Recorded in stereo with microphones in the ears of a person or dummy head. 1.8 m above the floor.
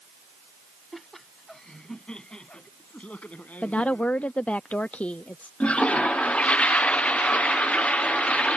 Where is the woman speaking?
5° left (ahead or behind).